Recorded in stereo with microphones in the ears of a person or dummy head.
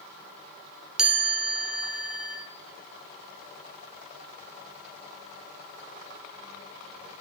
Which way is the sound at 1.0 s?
Centre (ahead or behind).